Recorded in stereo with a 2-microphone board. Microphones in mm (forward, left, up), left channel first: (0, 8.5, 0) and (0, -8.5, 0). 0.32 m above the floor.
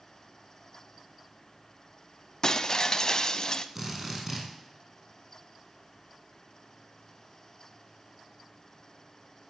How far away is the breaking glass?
About 0.9 m.